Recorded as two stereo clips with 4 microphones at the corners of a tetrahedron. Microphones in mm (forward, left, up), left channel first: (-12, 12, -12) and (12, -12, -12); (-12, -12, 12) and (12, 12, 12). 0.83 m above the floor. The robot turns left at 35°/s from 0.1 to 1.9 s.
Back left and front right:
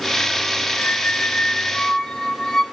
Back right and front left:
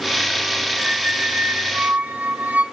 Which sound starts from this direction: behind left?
A squeak, at 0.8 s.